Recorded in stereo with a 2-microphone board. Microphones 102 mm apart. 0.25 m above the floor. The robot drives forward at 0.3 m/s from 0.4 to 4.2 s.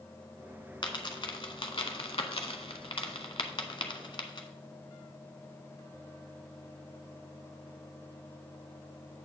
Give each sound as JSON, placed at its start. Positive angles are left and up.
{"t": 0.8, "sound": "a dropped coin", "side_deg": 50, "distance_m": 1.0}